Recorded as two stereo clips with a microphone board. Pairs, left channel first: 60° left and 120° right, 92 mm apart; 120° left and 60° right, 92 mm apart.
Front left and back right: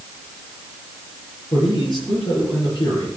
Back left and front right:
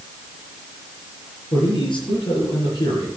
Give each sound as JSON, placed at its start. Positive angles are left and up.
{"t": 1.5, "sound": "a man speaking", "azimuth_deg": 95, "distance_m": 7.5}